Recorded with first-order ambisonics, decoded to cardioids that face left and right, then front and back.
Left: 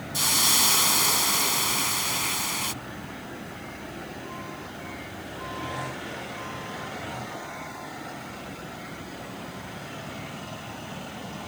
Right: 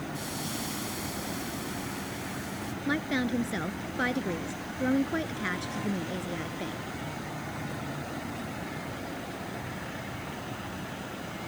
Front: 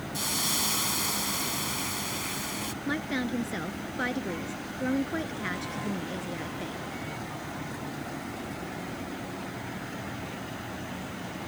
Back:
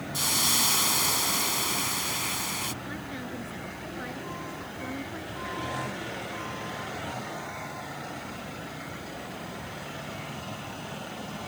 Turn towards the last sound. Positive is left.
turn(degrees=-60)